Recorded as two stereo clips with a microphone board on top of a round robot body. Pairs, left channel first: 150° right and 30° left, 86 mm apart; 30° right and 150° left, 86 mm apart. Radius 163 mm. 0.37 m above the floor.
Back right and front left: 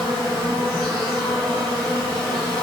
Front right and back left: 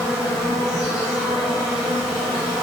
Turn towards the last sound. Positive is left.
turn(degrees=-125)